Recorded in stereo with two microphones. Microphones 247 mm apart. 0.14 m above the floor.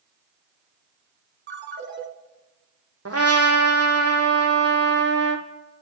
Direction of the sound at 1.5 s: 50° right (ahead or behind).